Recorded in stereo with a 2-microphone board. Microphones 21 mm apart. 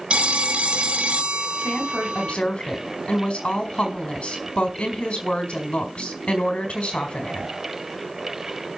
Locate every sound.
0.1 s a phone ringing: 70° right (ahead or behind), 0.8 m
1.6 s a woman speaking: 70° left (ahead or behind), 4 m